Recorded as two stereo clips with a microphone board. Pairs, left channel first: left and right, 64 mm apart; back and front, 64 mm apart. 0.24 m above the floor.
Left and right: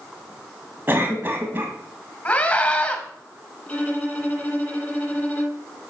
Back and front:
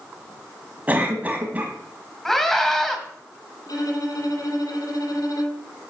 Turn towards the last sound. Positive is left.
turn(degrees=160)